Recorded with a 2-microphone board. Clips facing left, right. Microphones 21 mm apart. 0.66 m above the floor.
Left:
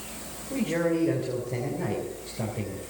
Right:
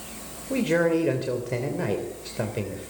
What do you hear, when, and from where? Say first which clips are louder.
0.5 s a man speaking: right 4 dB; 70° right (ahead or behind), 3 m